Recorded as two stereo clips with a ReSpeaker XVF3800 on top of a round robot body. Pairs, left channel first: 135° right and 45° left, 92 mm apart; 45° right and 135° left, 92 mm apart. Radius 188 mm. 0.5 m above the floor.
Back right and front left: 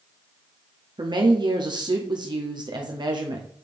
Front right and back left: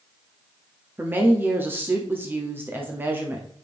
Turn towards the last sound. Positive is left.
turn(degrees=70)